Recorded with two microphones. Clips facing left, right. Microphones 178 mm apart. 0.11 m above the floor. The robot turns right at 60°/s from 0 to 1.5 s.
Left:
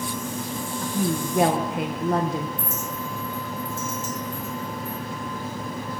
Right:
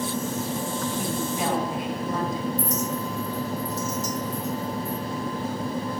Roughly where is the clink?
Right.